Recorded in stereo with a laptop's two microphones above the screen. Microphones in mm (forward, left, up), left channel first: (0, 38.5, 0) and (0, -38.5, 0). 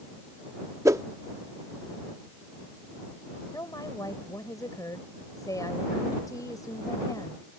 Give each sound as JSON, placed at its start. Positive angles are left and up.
{"t": 0.8, "sound": "a whoosh", "side_deg": -45}
{"t": 3.5, "sound": "a woman speaking", "side_deg": 55}